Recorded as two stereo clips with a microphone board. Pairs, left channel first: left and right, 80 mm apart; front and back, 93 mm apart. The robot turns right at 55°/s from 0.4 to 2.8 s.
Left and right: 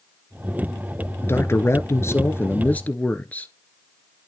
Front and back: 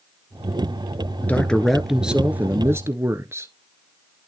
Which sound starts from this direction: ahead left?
A man speaking, at 1.2 s.